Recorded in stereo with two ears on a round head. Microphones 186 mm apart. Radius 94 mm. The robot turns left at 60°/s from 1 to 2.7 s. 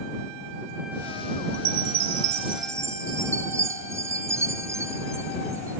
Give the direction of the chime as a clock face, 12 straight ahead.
3 o'clock.